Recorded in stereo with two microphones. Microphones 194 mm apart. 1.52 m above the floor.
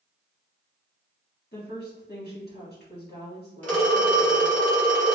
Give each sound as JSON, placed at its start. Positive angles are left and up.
{"t": 1.5, "sound": "a woman speaking", "side_deg": 55, "distance_m": 1.5}
{"t": 3.6, "sound": "a phone ringing", "side_deg": 10, "distance_m": 1.7}